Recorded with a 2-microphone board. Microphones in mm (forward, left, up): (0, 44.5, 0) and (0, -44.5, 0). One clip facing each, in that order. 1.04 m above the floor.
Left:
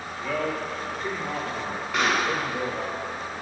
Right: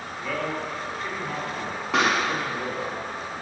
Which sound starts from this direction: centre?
A man speaking, at 0.2 s.